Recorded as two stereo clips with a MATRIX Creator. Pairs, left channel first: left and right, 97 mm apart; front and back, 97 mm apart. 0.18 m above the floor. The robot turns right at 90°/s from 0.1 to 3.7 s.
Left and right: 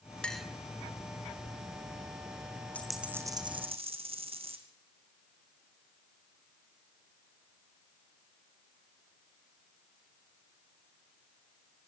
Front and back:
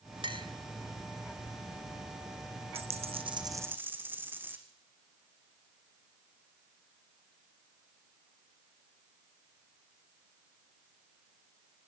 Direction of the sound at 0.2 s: 165° left.